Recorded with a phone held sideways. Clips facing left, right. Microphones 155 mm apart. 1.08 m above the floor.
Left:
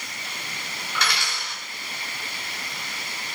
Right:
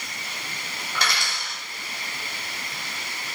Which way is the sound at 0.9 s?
40° right (ahead or behind).